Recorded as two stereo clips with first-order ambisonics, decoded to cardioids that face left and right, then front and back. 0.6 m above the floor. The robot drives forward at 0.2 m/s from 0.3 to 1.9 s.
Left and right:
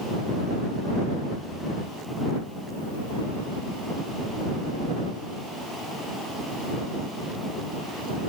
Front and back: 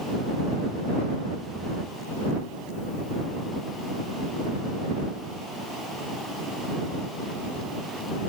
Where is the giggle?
I don't hear a giggle.